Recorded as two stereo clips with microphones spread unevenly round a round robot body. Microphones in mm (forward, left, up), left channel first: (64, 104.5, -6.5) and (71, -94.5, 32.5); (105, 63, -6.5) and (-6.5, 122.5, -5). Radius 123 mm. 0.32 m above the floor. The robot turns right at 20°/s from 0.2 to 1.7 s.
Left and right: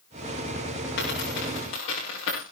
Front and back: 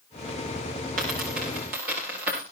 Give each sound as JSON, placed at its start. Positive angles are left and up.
{"t": 1.0, "sound": "a dropped coin", "azimuth_deg": 145, "distance_m": 8.0}